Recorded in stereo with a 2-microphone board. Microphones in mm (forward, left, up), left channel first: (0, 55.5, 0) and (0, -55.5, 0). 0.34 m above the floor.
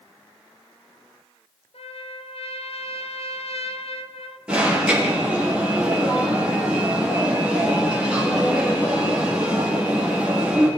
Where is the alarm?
10° right (ahead or behind), 7 m.